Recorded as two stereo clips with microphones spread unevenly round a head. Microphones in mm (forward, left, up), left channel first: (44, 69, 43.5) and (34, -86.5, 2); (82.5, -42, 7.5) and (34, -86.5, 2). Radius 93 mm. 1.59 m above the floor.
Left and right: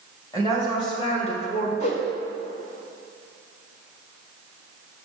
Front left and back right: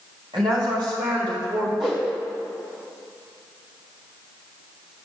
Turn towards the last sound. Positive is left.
turn(degrees=130)